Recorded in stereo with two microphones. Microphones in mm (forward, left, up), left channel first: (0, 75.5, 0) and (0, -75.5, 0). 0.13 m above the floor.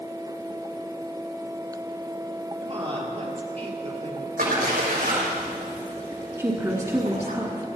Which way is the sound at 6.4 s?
20° right (ahead or behind).